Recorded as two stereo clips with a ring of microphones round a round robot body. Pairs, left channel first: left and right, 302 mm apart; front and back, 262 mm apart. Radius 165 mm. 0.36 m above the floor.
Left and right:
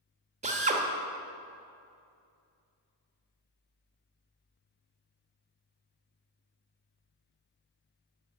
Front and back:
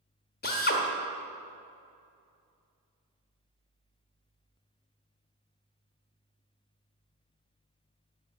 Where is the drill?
35° right, 1.2 m.